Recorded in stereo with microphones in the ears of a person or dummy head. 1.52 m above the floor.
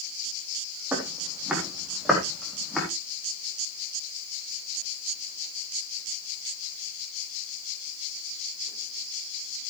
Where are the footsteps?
10° right (ahead or behind), 4 m; by 2.9 s centre (ahead or behind), 4.5 m.